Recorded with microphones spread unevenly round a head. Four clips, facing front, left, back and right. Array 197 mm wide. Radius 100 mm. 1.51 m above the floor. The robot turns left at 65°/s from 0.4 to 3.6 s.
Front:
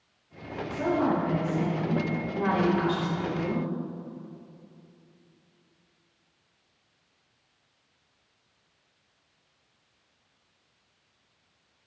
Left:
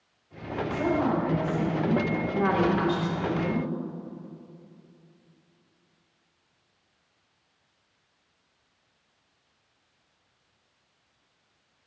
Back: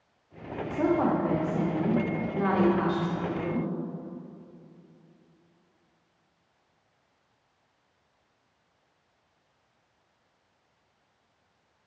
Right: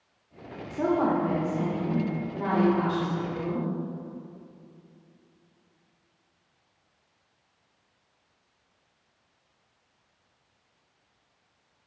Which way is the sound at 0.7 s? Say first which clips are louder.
Right 2 dB, back 1 dB; 140° right.